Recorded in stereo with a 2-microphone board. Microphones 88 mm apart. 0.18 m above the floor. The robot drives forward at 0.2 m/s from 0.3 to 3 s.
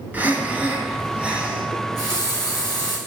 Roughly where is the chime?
No chime in this recording.